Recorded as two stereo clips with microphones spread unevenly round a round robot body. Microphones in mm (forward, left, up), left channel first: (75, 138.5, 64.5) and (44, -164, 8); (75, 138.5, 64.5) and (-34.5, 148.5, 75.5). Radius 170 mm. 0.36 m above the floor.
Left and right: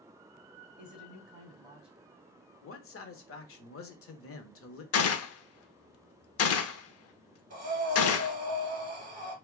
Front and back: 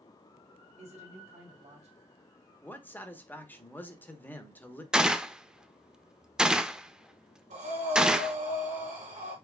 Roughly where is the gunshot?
Left.